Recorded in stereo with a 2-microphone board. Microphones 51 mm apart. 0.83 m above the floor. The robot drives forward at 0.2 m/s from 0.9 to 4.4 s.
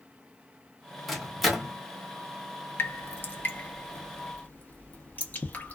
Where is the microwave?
Centre (ahead or behind), 0.8 m.